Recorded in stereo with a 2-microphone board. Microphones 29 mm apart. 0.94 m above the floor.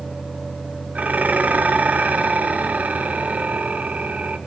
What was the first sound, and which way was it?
Dishes clattering, 55° right (ahead or behind).